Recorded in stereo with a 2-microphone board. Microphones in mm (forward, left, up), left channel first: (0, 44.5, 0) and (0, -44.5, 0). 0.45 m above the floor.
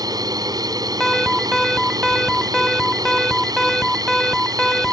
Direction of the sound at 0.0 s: 45° right (ahead or behind).